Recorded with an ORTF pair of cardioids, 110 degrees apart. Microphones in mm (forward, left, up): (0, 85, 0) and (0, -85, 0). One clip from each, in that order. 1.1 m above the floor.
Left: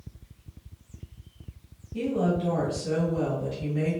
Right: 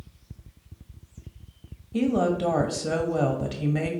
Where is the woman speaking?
65° right, 1.2 m.